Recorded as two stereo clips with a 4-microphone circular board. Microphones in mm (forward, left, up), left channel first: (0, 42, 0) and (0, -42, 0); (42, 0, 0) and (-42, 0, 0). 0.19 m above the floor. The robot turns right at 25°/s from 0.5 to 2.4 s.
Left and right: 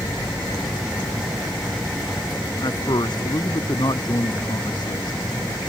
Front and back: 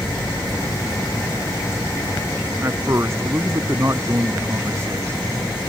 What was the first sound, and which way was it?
A man speaking, 120° left.